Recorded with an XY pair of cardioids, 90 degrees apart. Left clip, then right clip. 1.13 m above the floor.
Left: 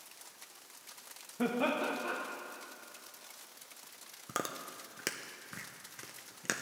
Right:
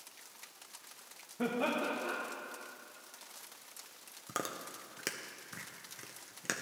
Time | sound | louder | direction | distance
1.4 | laughter | left 1 dB | 20° left | 1.0 m
4.3 | chewing | left 1 dB | 15° left | 0.5 m